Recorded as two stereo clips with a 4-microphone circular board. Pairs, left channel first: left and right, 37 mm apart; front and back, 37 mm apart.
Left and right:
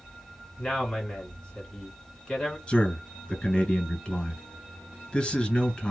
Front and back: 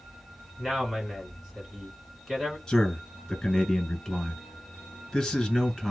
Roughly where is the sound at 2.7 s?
Left.